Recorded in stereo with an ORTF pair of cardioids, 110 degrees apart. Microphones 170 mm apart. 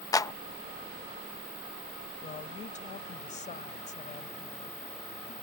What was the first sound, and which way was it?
A clap, 20° left.